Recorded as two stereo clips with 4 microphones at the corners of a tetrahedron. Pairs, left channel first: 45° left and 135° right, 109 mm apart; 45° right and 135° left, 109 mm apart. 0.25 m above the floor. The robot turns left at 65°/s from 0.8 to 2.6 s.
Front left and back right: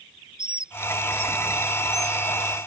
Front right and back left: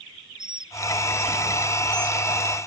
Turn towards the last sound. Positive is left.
turn(degrees=65)